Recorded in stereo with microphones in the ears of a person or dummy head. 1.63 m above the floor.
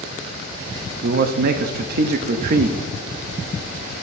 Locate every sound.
1.0 s a man speaking: 50° right (ahead or behind), 0.5 m